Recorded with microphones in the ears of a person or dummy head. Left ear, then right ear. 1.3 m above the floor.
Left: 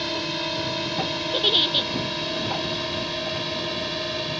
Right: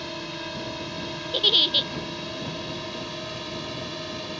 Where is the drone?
25° left (ahead or behind); by 4.4 s 20° left (ahead or behind).